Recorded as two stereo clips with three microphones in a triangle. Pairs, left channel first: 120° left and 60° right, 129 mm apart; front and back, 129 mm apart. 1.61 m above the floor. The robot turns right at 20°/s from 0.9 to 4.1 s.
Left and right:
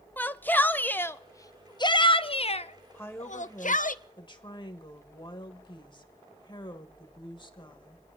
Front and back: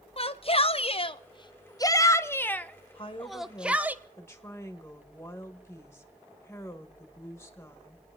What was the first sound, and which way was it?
A shout, 45° left.